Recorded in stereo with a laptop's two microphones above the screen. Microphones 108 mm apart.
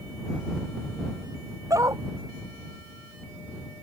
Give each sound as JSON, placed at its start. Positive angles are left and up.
{"t": 1.7, "sound": "a dog barking", "side_deg": -30}